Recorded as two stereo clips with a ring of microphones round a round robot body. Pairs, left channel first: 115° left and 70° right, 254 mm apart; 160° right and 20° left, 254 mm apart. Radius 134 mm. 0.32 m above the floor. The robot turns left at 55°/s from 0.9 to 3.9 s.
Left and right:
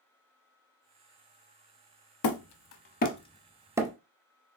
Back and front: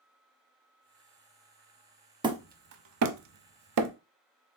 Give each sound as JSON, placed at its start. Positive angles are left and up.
{"t": 2.2, "sound": "hammering", "azimuth_deg": 95, "distance_m": 0.7}